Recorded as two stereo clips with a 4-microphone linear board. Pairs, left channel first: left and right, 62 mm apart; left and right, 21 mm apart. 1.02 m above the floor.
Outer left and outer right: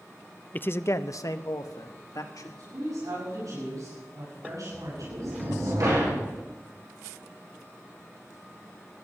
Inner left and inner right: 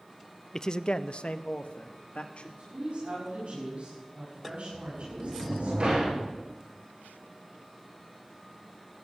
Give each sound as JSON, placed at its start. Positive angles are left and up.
{"t": 0.5, "sound": "a man speaking", "side_deg": 30, "distance_m": 0.5}
{"t": 2.6, "sound": "a woman speaking", "side_deg": -85, "distance_m": 8.0}
{"t": 4.7, "sound": "a sliding door", "side_deg": -65, "distance_m": 7.0}